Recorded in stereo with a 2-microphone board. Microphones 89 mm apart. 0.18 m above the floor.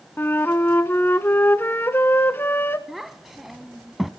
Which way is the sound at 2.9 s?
Centre (ahead or behind).